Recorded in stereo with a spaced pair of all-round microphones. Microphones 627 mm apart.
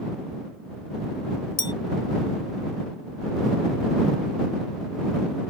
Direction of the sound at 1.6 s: 25° left (ahead or behind).